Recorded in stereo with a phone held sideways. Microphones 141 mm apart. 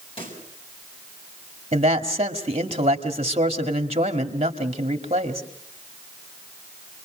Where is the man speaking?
45° right (ahead or behind), 2 m.